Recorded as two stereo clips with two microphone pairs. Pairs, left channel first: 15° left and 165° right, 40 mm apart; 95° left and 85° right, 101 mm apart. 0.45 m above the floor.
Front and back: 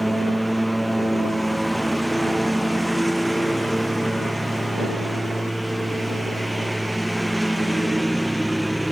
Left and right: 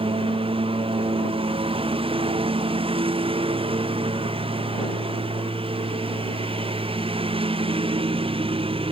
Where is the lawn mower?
70° right; by 8.9 s 75° right.